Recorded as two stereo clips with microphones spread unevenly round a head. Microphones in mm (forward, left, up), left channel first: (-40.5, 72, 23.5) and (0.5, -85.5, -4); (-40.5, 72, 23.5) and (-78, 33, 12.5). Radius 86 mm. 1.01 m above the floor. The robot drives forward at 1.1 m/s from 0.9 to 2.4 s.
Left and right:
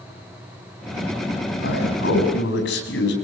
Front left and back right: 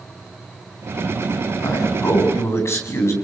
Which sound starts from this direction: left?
A man speaking, at 1.6 s.